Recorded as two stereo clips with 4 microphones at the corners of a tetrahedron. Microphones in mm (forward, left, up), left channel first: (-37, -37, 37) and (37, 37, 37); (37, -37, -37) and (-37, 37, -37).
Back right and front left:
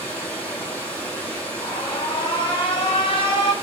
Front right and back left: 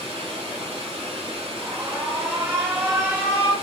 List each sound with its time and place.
0.0 s running water: 150° left, 1.0 m
1.6 s an alarm: 165° right, 1.2 m